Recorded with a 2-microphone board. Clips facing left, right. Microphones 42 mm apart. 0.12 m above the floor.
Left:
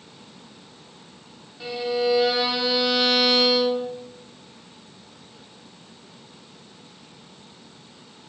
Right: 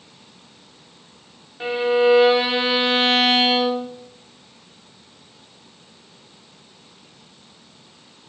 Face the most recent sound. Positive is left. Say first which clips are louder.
# right 7 dB
turn(degrees=-35)  # may be behind; listen again after turning